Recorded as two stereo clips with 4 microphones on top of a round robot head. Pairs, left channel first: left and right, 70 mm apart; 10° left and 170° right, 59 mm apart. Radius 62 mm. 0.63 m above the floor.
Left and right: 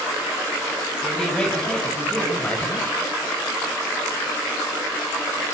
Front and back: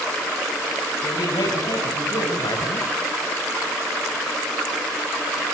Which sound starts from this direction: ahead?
A man speaking, at 1.0 s.